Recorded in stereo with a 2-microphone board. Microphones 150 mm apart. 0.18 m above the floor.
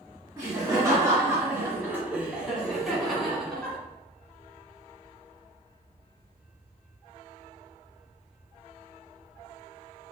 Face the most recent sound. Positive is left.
turn(degrees=5)  # may be behind; listen again after turning